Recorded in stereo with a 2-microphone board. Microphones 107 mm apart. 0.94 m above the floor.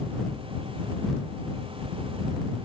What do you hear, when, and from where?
Only background noise.